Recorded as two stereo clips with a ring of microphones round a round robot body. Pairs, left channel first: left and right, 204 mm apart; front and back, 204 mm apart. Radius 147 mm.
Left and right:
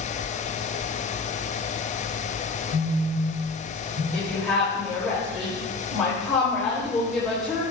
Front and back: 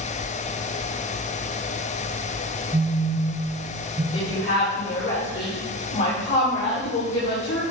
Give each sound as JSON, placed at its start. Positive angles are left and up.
{"t": 2.7, "sound": "a phone buzzing", "azimuth_deg": -100, "distance_m": 3.0}
{"t": 4.1, "sound": "a woman speaking", "azimuth_deg": 0, "distance_m": 3.5}